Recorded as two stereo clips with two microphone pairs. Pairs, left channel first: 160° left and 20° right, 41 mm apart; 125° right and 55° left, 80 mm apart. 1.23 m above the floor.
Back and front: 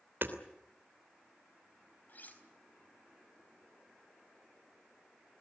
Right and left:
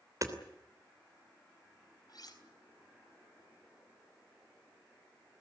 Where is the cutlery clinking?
155° right, 4 m.